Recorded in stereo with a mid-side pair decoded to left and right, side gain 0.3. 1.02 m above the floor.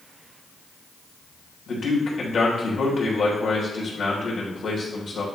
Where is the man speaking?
60° left, 3 m.